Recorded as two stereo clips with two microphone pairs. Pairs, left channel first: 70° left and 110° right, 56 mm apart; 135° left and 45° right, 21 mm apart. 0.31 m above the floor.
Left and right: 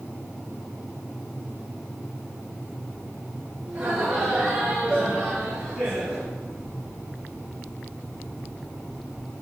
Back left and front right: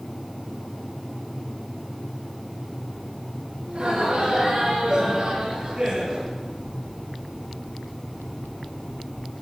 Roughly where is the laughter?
Ahead right.